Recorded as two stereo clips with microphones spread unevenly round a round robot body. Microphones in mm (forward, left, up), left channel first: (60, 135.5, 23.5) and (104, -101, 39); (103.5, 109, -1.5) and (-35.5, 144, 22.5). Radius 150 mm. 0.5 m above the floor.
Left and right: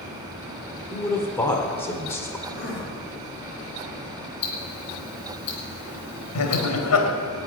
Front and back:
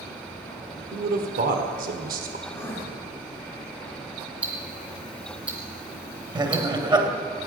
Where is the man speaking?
Straight behind, 1.4 m.